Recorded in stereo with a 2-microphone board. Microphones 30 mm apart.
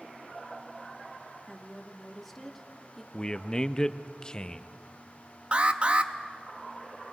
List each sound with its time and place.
1.5 s a woman speaking: 5° left (ahead or behind), 1.7 m
3.1 s a man speaking: 30° left (ahead or behind), 0.5 m
5.5 s an alarm: 40° right (ahead or behind), 0.8 m